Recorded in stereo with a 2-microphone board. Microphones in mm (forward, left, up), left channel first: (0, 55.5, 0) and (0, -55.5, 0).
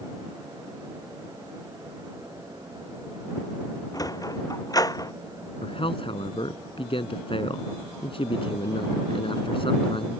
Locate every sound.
3.9 s a sliding door: 30° left (ahead or behind)
5.6 s a man speaking: 55° left (ahead or behind)